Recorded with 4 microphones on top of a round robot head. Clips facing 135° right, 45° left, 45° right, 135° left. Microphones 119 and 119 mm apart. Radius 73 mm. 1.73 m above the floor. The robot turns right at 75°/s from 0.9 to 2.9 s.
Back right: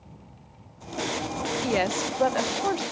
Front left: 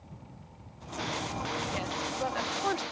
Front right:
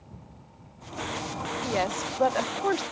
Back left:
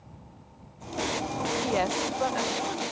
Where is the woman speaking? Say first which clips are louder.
Back right 9 dB, front right 1 dB; 150° right; by 2.8 s 60° right.